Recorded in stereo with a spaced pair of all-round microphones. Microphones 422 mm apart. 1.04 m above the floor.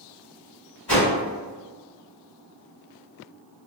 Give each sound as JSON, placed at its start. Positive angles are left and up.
{"t": 0.9, "sound": "a whoosh", "side_deg": 70, "distance_m": 1.9}